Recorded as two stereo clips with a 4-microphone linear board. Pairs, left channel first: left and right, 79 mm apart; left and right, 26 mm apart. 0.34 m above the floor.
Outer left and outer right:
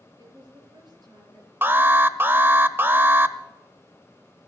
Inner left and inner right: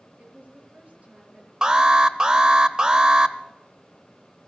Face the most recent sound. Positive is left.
turn(degrees=-25)  # may be behind; listen again after turning